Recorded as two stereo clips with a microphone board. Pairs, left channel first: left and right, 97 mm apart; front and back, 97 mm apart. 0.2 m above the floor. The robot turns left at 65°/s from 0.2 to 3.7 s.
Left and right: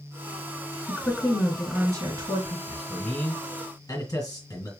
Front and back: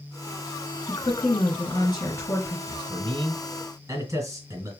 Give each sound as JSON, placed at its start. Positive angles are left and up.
{"t": 0.9, "sound": "a woman speaking", "azimuth_deg": 40, "distance_m": 2.5}
{"t": 2.7, "sound": "a man speaking", "azimuth_deg": -160, "distance_m": 3.0}